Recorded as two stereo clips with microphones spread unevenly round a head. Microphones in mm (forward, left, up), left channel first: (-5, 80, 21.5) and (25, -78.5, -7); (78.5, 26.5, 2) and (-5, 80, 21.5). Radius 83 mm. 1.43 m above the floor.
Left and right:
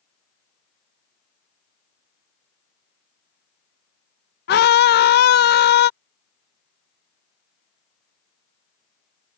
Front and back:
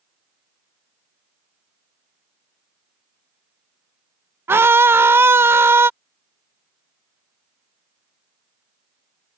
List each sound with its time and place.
4.5 s a scream: 85° left